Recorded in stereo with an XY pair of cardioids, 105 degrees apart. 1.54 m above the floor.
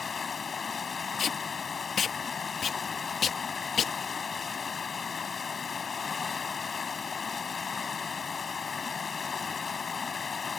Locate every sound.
0.0 s running water: 35° left
1.2 s tape being pulled: 50° left